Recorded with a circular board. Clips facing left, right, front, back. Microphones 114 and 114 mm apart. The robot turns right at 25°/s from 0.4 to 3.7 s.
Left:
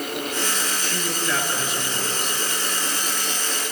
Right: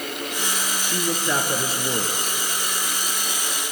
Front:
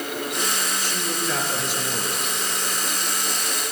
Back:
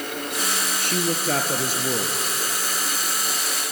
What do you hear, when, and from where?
0.8 s a woman speaking: 165° right, 2.5 m; by 2.4 s 125° right, 2.5 m